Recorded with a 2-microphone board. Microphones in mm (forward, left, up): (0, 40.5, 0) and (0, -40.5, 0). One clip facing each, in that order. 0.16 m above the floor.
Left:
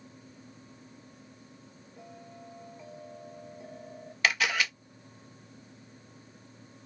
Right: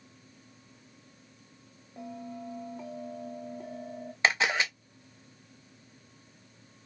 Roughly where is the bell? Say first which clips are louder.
Right 8 dB; right.